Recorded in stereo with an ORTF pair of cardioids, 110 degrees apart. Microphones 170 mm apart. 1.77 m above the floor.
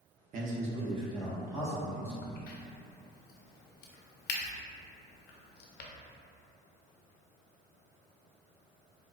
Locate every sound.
0.3 s a man speaking: 55° right, 0.7 m; by 2.1 s 15° right, 2.0 m
2.2 s a crack: 70° left, 0.6 m